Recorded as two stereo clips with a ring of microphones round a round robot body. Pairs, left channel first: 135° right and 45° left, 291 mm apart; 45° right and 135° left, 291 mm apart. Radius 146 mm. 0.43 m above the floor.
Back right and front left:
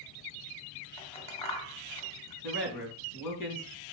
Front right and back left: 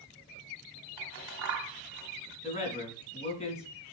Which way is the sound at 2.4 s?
115° right.